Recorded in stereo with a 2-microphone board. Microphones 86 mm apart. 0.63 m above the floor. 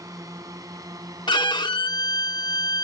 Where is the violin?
60° left (ahead or behind).